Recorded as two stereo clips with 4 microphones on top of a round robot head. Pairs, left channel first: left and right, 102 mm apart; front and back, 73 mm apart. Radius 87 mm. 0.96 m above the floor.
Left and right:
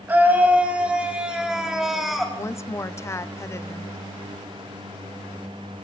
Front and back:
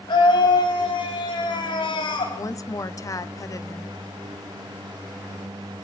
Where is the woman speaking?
30° left, 1.4 m.